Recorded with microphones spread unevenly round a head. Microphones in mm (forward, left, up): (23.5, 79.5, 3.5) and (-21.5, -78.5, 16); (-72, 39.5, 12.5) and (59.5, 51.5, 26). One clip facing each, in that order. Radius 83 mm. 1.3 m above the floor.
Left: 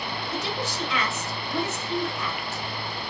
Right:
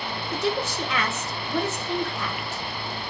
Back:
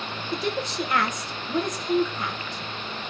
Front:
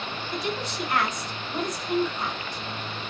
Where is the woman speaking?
155° right, 1.1 m.